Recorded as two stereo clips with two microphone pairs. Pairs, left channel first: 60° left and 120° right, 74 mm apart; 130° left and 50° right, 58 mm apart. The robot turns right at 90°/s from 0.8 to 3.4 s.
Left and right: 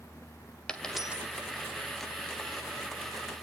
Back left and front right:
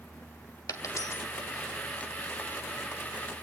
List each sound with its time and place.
0.7 s a dropped coin: 135° left, 1.9 m; by 1.2 s 175° left, 1.9 m